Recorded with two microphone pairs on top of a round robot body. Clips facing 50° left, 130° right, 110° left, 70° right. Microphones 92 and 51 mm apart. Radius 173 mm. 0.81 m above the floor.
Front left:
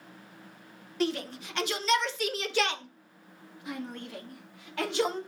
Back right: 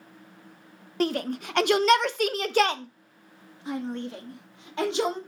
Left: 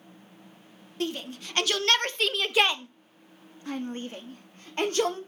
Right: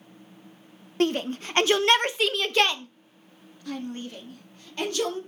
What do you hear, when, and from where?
1.0 s a shout: 95° right, 1.0 m; by 5.2 s 160° left, 2.5 m